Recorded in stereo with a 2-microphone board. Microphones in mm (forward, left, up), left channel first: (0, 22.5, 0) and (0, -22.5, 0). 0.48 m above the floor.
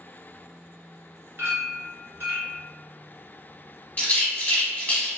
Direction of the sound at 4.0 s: 30° left (ahead or behind).